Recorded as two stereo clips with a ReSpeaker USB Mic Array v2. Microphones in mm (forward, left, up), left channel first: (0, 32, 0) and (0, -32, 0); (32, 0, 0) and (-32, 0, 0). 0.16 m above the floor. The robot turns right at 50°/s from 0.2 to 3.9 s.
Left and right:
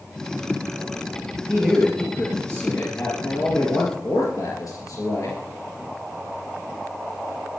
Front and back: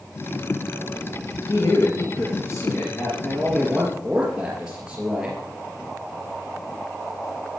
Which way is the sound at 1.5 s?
15° right.